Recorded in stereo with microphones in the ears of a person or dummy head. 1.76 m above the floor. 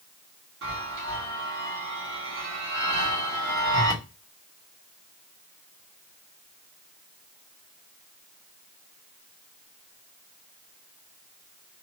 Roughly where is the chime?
Right.